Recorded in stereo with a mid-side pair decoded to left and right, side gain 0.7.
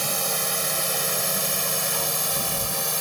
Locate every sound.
0.0 s a drone: 15° right; by 3.0 s straight ahead